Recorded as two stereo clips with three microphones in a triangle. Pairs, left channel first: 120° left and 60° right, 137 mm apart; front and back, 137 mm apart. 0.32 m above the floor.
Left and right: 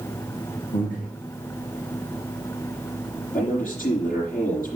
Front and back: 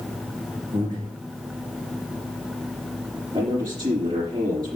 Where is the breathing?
130° left, 5.5 m.